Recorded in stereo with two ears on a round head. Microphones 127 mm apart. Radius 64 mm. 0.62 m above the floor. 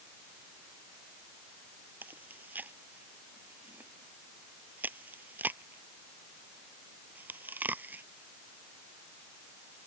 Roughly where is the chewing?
Centre.